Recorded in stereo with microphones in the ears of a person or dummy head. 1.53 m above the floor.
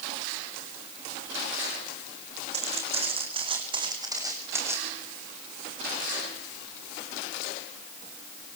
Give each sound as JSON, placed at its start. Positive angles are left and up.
{"t": 2.5, "sound": "footsteps", "side_deg": -35, "distance_m": 5.0}